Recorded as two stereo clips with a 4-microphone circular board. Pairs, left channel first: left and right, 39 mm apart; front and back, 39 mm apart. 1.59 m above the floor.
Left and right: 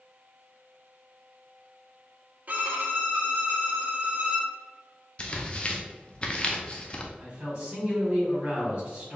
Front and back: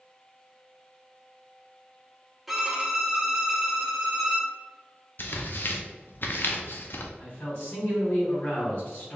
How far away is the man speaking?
About 1.9 m.